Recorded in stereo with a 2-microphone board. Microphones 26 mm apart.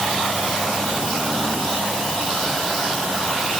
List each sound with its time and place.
Only background noise.